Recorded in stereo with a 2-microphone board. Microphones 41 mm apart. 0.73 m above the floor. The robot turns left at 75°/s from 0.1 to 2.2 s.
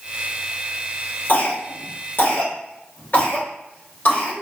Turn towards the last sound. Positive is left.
turn(degrees=50)  # may be behind; listen again after turning